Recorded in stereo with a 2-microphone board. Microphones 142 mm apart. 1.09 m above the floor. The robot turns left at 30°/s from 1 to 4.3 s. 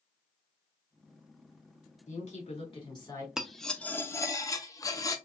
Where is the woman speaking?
55° left, 2 m; by 3.3 s 20° left, 2 m.